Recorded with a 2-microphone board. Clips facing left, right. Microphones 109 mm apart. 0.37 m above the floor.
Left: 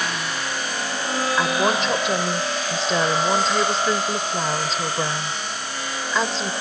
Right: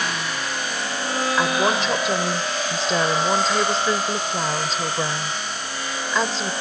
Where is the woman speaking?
Centre (ahead or behind).